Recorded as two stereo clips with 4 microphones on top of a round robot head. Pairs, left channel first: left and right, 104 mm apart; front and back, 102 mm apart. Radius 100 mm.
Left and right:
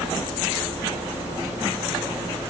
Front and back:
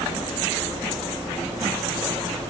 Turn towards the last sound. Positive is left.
No sound to turn to.